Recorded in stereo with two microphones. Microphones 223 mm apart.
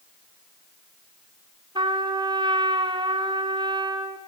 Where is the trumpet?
20° right (ahead or behind), 1.1 m.